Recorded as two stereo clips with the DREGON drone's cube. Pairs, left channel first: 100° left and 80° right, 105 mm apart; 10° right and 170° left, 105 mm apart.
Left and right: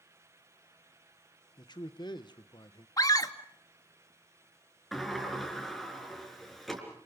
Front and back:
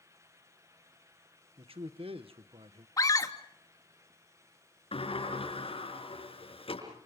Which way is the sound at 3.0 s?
45° left.